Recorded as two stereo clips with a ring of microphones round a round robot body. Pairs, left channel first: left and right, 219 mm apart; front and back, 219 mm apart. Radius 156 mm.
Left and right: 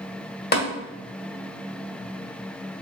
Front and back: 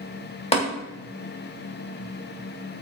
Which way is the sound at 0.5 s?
55° left.